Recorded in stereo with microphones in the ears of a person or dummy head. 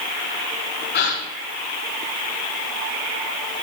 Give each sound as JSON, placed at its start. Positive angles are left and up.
{"t": 0.9, "sound": "a gasp", "side_deg": 50, "distance_m": 3.5}